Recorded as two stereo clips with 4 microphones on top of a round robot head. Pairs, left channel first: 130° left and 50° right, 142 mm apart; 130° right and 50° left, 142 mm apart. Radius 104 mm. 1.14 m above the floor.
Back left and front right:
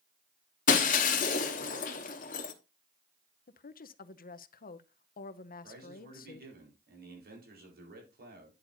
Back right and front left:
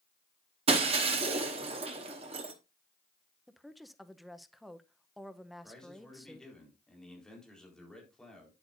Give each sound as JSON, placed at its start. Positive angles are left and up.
{"t": 0.7, "sound": "breaking glass", "azimuth_deg": 100, "distance_m": 1.1}
{"t": 3.5, "sound": "a woman speaking", "azimuth_deg": 140, "distance_m": 0.8}
{"t": 5.6, "sound": "a man speaking", "azimuth_deg": -45, "distance_m": 4.0}